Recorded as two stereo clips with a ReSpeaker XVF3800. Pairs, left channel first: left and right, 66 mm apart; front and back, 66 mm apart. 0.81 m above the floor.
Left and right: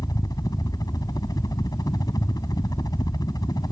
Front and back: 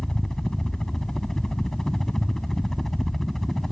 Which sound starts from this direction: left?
A helicopter, at 0.0 s.